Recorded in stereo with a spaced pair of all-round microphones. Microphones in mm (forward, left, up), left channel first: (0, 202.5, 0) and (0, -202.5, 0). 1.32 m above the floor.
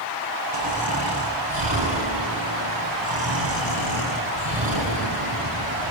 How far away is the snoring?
About 8.5 m.